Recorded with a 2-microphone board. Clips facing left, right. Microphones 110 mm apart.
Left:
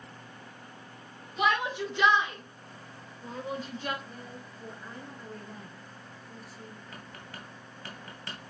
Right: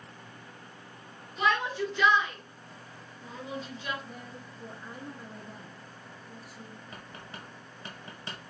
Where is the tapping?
20° right (ahead or behind), 2.5 m.